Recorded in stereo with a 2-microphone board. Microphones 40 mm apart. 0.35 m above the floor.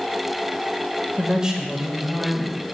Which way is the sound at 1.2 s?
20° right (ahead or behind).